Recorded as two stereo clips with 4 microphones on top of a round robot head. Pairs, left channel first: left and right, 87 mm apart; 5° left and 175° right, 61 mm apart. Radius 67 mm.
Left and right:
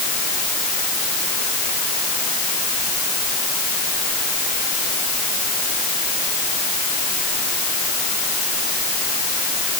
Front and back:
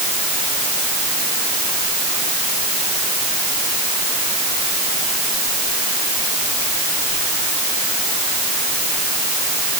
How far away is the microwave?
No microwave in this recording.